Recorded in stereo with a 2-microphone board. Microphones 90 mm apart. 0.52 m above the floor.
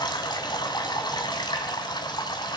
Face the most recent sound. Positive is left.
turn(degrees=50)  # may be behind; listen again after turning